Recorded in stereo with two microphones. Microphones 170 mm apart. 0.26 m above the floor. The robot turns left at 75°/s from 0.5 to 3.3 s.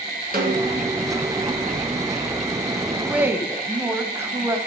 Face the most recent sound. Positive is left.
turn(degrees=-15)  # may be behind; listen again after turning